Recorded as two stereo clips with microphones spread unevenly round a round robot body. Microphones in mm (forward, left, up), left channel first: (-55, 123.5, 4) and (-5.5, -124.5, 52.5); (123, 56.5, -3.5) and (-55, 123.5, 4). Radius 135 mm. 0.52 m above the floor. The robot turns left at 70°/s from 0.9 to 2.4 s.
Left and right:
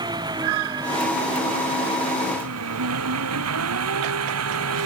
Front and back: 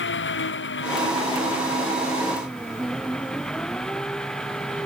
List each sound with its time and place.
0.0 s an engine running: 5° right; by 4.9 s 110° right